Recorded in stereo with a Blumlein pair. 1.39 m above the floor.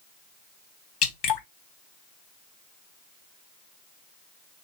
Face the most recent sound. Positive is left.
turn(degrees=35)